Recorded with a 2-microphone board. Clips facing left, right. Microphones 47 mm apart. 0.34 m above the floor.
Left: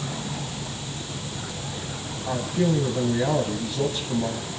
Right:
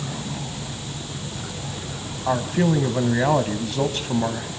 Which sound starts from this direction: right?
A man speaking, at 2.3 s.